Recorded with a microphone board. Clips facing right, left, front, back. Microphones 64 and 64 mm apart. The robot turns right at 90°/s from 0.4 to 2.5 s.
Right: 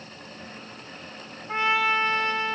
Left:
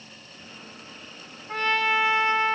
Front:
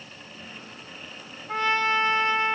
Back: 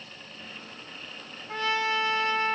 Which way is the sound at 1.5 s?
40° right.